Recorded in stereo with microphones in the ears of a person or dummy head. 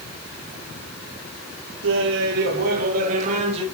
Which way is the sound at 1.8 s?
80° right.